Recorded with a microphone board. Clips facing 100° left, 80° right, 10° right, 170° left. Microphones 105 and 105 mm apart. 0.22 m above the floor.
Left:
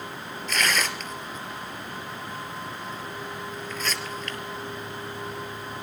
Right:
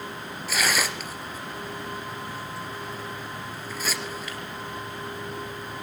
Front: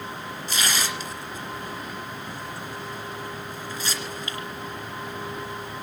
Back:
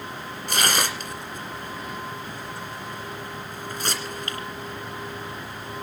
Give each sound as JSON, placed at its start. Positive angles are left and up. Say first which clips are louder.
{"t": 0.5, "sound": "tearing paper", "louder": "even, back 4 dB", "azimuth_deg": -160, "distance_m": 2.5}